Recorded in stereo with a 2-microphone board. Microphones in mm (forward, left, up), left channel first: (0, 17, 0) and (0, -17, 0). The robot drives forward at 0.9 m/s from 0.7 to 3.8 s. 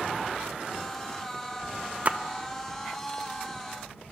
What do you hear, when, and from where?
2.0 s a splash: 40° right (ahead or behind), 0.8 m; by 2.2 s 35° right (ahead or behind), 0.9 m